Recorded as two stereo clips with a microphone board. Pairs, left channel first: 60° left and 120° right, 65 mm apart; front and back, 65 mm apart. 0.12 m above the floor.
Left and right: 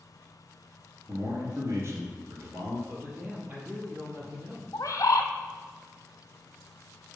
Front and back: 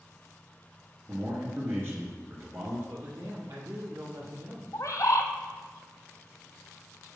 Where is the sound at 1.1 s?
145° right, 2.0 m.